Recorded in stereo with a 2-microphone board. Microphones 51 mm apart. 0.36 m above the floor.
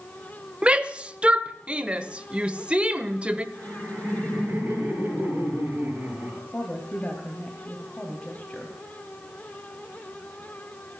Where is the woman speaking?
25° left (ahead or behind), 2.5 m.